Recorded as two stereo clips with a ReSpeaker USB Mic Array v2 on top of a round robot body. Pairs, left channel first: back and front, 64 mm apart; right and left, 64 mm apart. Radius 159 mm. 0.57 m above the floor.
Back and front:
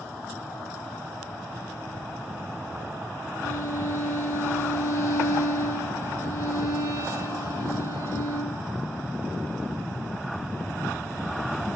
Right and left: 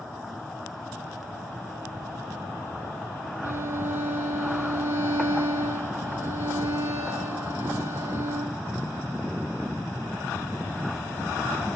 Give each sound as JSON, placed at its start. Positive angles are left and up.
{"t": 3.4, "sound": "a violin", "azimuth_deg": 140, "distance_m": 7.0}